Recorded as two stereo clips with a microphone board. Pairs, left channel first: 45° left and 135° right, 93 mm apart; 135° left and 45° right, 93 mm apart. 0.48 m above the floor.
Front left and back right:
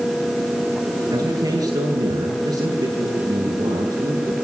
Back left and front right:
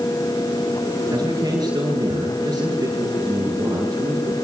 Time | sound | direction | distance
1.1 | a man speaking | 100° right | 8 m